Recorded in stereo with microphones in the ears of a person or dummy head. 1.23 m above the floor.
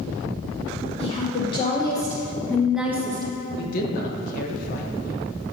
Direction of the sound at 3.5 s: 50° left (ahead or behind).